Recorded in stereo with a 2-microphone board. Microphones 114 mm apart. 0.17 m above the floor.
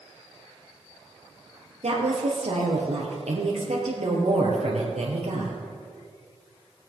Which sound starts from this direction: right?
A woman speaking, at 1.8 s.